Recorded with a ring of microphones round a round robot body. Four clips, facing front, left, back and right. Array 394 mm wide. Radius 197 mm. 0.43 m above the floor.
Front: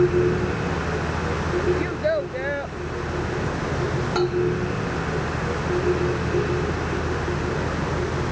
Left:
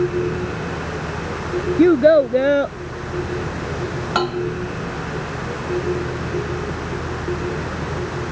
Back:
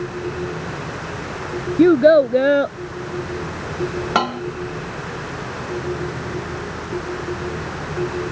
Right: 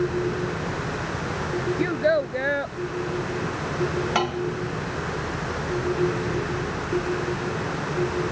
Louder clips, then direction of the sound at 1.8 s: Left 12 dB, back 12 dB; 140° left.